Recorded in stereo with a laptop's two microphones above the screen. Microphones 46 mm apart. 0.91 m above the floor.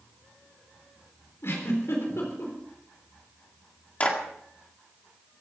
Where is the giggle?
70° left (ahead or behind), 4 m.